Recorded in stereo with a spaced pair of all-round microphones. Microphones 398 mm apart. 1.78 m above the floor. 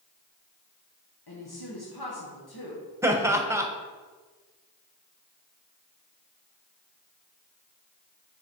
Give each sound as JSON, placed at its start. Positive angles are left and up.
{"t": 1.3, "sound": "a woman speaking", "side_deg": 65, "distance_m": 1.6}
{"t": 3.0, "sound": "laughter", "side_deg": -5, "distance_m": 1.2}